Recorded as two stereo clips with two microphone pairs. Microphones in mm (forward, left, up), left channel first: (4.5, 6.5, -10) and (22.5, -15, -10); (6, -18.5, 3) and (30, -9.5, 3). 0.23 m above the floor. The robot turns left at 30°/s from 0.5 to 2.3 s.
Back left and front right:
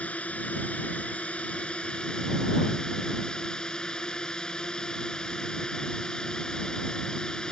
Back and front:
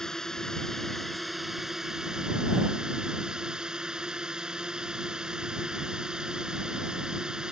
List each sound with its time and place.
0.0 s a drone: 130° left; by 7.5 s 80° left